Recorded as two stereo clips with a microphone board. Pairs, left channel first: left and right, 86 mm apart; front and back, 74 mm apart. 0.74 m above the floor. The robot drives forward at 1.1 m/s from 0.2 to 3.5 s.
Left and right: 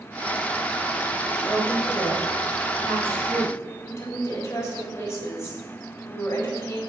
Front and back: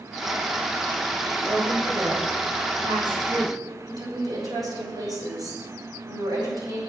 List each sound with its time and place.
1.4 s a woman speaking: 170° left, 3.5 m; by 3.6 s 175° left, 6 m
3.9 s a woman speaking: 150° left, 4 m